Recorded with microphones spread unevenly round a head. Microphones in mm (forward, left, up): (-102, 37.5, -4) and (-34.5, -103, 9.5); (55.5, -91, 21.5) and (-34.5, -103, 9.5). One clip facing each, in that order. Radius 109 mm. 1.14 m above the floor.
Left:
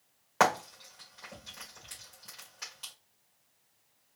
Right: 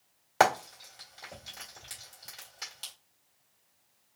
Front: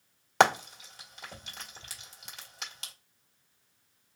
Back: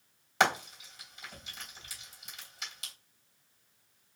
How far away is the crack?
No crack in this recording.